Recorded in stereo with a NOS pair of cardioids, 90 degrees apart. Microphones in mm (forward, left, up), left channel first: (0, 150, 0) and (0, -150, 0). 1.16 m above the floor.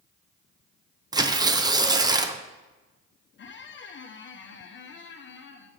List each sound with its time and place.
1.1 s tearing paper: 15° right, 0.5 m
3.4 s a squeak: 40° left, 0.8 m